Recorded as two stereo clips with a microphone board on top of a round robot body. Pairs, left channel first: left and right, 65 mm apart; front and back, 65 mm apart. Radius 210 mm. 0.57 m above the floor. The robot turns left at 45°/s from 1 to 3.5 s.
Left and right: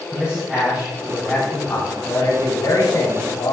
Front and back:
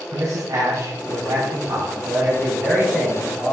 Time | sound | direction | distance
0.1 | a man speaking | 165° right | 3.5 m